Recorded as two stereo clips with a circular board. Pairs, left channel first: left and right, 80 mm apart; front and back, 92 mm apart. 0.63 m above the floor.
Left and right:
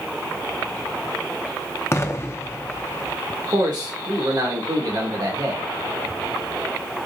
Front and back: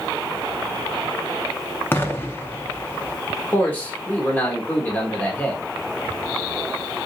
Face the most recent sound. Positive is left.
turn(degrees=-70)